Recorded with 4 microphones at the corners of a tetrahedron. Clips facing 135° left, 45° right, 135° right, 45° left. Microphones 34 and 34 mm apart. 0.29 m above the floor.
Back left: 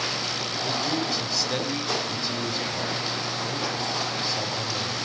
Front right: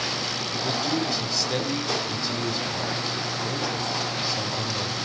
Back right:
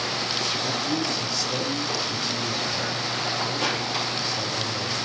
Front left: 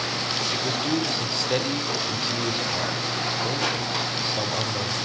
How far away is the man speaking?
About 1.3 m.